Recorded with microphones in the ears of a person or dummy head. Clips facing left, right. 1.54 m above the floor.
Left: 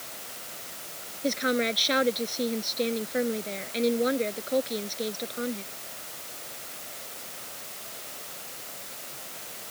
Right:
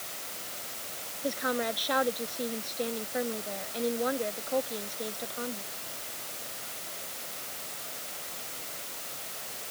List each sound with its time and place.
1.2 s a woman speaking: 30° left (ahead or behind)